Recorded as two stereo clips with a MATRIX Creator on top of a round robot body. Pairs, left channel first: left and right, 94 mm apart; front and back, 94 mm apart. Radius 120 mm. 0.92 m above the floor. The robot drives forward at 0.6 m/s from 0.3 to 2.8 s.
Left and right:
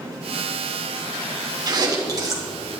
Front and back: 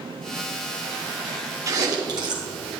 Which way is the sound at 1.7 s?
130° right.